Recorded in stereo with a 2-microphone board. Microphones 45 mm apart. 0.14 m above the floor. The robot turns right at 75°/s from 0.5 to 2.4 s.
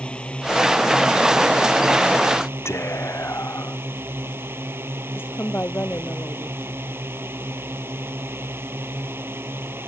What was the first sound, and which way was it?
A drone, 155° left.